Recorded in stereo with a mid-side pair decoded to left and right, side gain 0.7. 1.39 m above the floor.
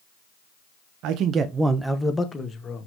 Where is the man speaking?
60° right, 1.3 m; by 2.9 s 30° left, 2.5 m.